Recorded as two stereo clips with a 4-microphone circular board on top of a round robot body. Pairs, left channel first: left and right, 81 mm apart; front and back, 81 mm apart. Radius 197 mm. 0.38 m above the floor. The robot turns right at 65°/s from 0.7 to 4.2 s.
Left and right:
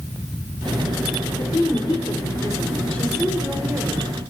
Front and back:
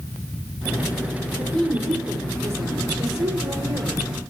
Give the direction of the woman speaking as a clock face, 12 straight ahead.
10 o'clock.